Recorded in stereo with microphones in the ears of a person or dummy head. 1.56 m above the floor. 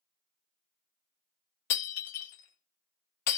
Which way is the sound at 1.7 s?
65° left (ahead or behind).